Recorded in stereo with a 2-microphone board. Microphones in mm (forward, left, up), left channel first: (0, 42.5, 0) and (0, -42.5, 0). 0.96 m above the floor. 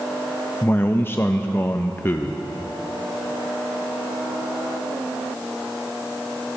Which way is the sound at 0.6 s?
25° left (ahead or behind).